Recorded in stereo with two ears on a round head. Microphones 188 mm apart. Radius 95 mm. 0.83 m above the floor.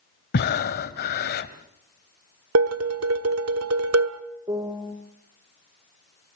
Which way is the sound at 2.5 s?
85° right.